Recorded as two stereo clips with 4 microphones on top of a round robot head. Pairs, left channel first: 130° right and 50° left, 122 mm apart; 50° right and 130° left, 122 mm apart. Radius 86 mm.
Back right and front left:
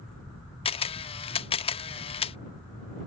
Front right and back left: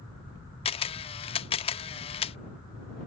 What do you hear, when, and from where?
0.7 s a camera shutter: 90° right